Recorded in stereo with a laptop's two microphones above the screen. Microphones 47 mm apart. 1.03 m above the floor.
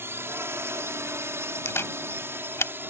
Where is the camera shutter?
65° left (ahead or behind).